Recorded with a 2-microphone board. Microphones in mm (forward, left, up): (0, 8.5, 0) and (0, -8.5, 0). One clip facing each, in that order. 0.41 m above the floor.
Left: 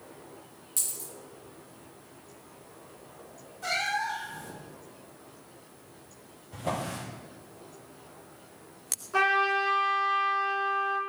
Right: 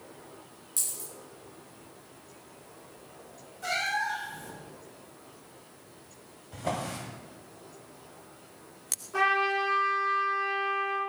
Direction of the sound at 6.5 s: 25° right (ahead or behind).